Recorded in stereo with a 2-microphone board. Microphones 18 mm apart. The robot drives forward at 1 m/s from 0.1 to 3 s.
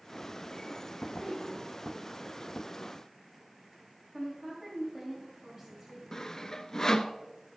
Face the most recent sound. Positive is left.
turn(degrees=30)  # may be behind; listen again after turning